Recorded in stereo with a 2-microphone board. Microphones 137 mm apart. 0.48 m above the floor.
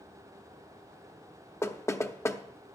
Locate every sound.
1.6 s knocking: 20° left (ahead or behind), 0.7 m